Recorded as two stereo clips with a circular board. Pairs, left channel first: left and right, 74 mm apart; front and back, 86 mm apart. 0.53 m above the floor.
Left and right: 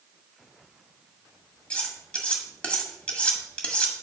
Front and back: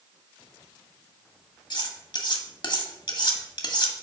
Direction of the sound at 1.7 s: 20° left.